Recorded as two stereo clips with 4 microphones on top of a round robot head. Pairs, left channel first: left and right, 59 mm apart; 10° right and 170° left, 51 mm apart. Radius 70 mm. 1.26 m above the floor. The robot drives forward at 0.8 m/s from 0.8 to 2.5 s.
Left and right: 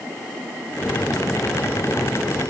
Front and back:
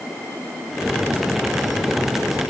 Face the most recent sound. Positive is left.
No sound to turn to.